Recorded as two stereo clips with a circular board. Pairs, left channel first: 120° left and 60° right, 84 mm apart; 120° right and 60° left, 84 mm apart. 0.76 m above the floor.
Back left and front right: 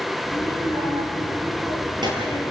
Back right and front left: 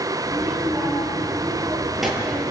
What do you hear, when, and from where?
0.2 s a child speaking: 25° right, 9.5 m; by 2.5 s 30° right, 8 m